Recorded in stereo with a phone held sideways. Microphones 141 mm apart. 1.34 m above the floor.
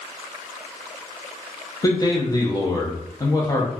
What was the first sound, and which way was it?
A man speaking, 25° left (ahead or behind).